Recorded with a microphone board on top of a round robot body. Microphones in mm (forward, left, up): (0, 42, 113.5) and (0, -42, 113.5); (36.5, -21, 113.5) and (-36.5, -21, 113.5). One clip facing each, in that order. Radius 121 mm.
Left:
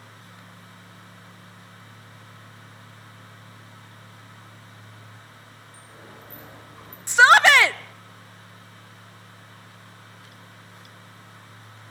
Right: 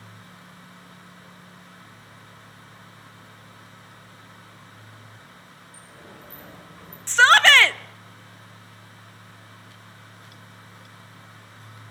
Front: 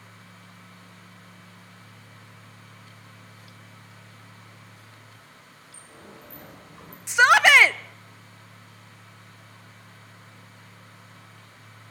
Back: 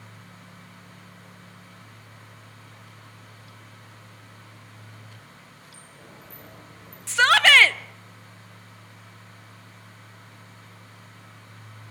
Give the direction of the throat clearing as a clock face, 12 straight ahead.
No throat clearing in this recording.